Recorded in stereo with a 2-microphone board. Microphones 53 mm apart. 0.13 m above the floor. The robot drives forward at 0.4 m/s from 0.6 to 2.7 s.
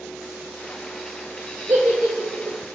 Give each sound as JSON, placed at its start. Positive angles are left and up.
{"t": 1.7, "sound": "a giggle", "side_deg": -60, "distance_m": 1.0}